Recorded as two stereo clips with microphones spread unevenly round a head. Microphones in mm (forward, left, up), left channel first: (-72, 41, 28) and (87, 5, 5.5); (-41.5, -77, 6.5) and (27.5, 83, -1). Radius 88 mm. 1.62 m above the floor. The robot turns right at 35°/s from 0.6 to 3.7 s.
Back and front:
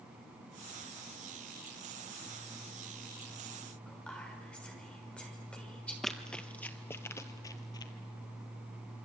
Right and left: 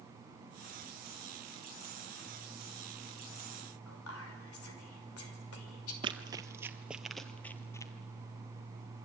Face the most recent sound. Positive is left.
turn(degrees=-165)